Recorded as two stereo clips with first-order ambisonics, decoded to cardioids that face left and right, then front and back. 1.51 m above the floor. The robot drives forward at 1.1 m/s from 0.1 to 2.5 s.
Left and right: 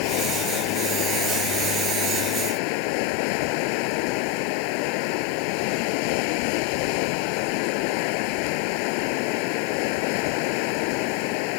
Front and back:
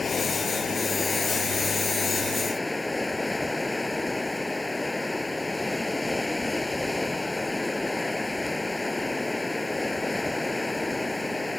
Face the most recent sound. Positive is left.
turn(degrees=85)